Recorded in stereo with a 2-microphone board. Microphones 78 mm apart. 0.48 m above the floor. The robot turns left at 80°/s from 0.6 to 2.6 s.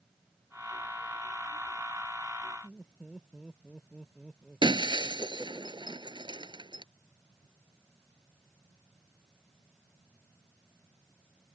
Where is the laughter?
5° right (ahead or behind).